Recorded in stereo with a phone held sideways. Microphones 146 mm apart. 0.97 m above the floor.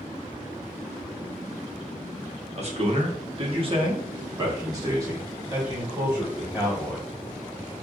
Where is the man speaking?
45° right (ahead or behind), 1.0 m; by 7.1 s 10° right (ahead or behind), 2 m.